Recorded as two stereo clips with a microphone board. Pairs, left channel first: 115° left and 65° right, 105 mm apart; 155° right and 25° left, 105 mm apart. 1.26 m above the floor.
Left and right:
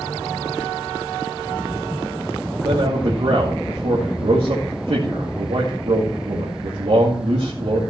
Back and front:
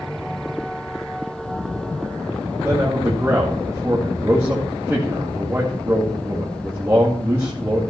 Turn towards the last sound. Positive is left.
turn(degrees=-45)